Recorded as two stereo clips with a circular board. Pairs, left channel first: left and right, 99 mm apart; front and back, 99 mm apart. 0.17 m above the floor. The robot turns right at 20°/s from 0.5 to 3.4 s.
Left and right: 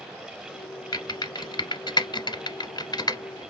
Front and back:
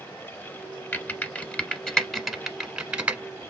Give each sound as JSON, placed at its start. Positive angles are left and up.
{"t": 0.9, "sound": "typing on a keyboard", "azimuth_deg": 60, "distance_m": 0.8}